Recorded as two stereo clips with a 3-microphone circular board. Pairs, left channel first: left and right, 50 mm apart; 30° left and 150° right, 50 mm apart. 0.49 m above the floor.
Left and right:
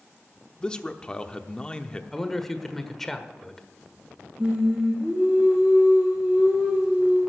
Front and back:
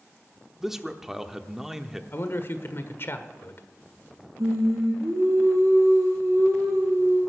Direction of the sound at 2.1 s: 5° left.